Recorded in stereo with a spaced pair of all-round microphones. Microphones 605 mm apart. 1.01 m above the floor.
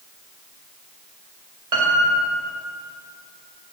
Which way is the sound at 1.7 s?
65° right (ahead or behind).